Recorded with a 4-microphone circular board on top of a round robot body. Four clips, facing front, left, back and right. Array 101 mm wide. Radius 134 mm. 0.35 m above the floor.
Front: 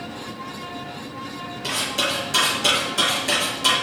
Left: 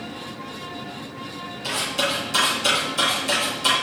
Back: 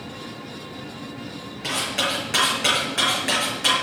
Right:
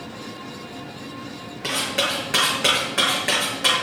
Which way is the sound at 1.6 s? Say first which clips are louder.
Right 1 dB, even; 105° right.